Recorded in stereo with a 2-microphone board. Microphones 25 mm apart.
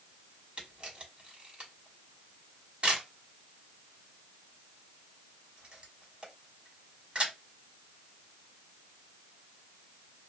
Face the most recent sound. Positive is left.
turn(degrees=-45)  # may be behind; listen again after turning